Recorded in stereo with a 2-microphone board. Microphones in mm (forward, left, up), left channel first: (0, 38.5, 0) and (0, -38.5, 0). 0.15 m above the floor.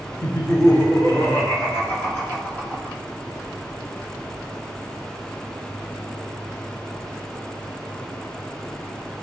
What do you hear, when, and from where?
0.2 s laughter: 45° left (ahead or behind), 1.9 m; by 3.0 s 15° left (ahead or behind), 1.8 m